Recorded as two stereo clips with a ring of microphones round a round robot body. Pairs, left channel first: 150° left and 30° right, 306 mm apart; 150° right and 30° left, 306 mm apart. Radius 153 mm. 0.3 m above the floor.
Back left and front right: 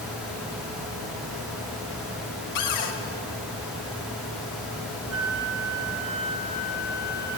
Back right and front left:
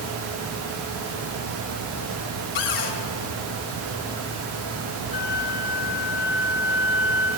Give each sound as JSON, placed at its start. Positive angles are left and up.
{"t": 2.5, "sound": "a cupboard door", "azimuth_deg": 180, "distance_m": 2.0}
{"t": 5.1, "sound": "a flute", "azimuth_deg": 15, "distance_m": 7.0}